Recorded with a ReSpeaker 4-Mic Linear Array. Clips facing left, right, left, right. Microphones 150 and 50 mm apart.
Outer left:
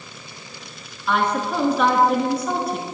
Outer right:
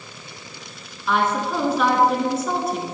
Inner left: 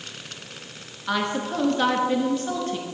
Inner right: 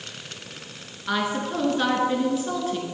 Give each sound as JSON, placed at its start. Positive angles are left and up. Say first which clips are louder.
{"t": 1.1, "sound": "a woman speaking", "louder": "even, even", "side_deg": 0, "distance_m": 1.3}